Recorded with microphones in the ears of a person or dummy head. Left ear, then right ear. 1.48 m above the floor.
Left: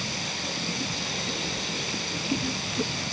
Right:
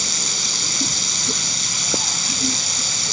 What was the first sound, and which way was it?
Running water, 60° right (ahead or behind).